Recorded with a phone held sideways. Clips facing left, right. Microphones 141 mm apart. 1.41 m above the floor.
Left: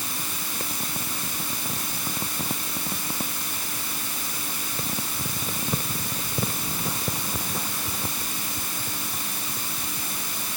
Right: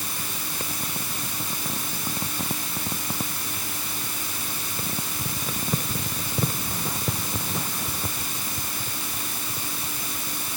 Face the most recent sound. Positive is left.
No sound to turn to.